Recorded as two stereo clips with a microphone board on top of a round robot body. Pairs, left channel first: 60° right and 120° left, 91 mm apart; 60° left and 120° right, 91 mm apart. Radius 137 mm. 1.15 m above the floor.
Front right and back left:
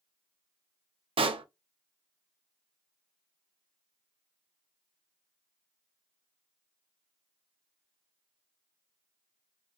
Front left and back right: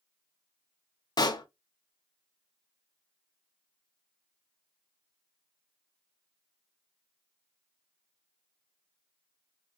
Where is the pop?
105° left, 0.7 m.